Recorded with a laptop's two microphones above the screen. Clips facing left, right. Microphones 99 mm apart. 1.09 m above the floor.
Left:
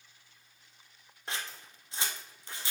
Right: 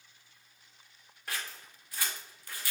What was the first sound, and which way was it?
Scissors, 25° left (ahead or behind).